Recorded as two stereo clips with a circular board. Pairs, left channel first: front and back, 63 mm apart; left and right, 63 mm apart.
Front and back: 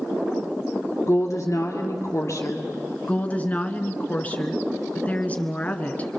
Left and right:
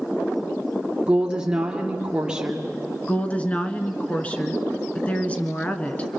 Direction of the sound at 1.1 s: 15° right.